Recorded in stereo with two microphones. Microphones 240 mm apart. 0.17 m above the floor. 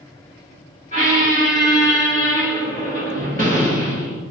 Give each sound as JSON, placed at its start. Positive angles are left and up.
{"t": 0.9, "sound": "a squeak", "side_deg": -35, "distance_m": 1.7}